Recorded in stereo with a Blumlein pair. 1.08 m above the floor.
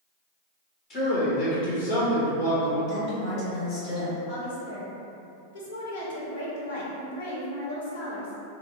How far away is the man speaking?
About 1.7 m.